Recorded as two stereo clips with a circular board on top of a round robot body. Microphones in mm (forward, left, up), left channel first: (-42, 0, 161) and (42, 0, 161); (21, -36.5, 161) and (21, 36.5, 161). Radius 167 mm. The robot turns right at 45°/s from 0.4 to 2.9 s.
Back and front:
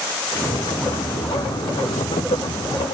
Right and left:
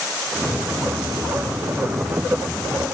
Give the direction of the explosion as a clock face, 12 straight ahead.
No explosion in this recording.